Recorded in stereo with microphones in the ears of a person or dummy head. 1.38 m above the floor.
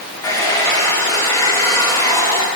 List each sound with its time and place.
0.2 s a hair dryer: 15° left (ahead or behind), 1.6 m